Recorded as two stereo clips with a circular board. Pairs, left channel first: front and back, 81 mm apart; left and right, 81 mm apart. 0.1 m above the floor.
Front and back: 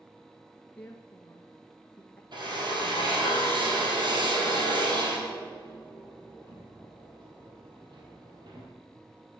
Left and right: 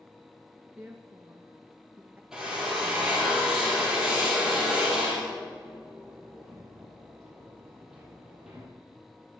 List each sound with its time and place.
0.8 s a woman speaking: 55° right, 1.3 m
2.3 s a drill: 170° right, 3.5 m